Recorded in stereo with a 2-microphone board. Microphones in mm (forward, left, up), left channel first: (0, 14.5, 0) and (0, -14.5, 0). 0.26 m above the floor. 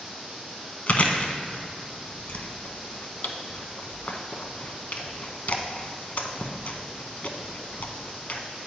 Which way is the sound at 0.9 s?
55° left (ahead or behind).